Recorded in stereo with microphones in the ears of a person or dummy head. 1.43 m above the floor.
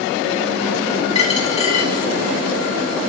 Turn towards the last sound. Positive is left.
turn(degrees=40)  # may be behind; listen again after turning